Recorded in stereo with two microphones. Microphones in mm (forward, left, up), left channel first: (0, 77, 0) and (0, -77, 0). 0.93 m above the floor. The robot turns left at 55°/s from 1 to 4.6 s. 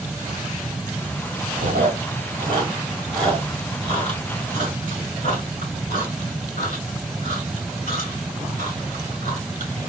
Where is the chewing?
75° right (ahead or behind), 1.9 m; by 9.7 s 70° left (ahead or behind), 1.9 m.